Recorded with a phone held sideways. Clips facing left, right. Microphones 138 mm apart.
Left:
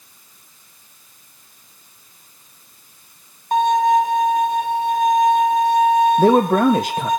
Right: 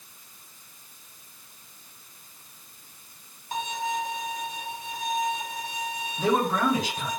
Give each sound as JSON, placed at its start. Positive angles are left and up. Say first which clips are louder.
{"t": 3.5, "sound": "a violin", "louder": "left 15 dB", "side_deg": 55, "distance_m": 1.2}
{"t": 6.2, "sound": "a man speaking", "louder": "left 10 dB", "side_deg": 55, "distance_m": 0.6}